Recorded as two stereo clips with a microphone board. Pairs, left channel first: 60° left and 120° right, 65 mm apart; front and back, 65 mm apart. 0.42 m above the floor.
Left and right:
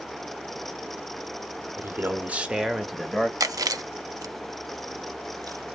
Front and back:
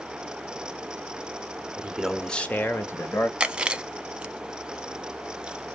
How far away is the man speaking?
About 1.1 m.